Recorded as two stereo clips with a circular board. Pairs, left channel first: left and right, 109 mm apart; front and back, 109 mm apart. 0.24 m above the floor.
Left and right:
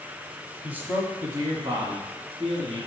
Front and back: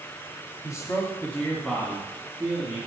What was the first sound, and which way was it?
A man speaking, 20° right.